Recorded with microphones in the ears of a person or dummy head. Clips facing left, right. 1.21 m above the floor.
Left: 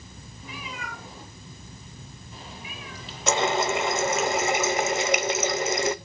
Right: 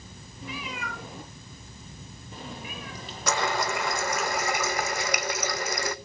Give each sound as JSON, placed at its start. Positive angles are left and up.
{"t": 0.4, "sound": "a cat meowing", "side_deg": -55, "distance_m": 5.0}
{"t": 3.3, "sound": "a running tap", "side_deg": 20, "distance_m": 0.6}